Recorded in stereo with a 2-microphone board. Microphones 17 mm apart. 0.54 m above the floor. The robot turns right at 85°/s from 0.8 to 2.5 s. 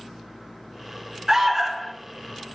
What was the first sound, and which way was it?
An alarm, 30° right.